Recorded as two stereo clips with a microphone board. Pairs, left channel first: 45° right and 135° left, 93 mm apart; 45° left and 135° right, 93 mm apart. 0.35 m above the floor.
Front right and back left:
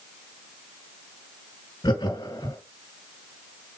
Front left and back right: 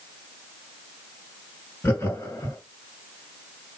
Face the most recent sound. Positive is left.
turn(degrees=-20)